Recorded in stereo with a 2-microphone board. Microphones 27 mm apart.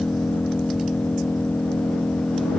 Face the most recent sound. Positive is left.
turn(degrees=70)  # may be behind; listen again after turning